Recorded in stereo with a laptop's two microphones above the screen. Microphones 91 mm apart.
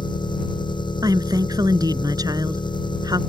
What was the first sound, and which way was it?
An engine running, 55° left (ahead or behind).